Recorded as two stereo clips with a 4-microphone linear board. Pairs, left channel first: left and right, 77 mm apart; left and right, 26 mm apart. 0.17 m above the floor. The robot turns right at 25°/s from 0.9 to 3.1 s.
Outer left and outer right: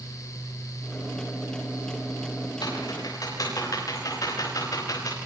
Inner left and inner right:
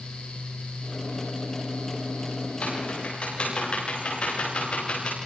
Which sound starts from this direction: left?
Typing on a keyboard, at 2.6 s.